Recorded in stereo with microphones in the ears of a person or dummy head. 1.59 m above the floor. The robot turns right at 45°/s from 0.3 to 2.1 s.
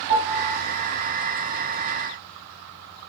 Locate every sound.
0.1 s a piano: 30° right (ahead or behind), 1.1 m; by 0.6 s 45° right (ahead or behind), 1.1 m